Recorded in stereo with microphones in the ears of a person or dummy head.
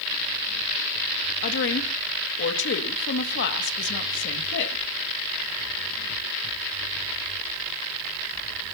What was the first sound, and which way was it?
A woman speaking, 60° left (ahead or behind).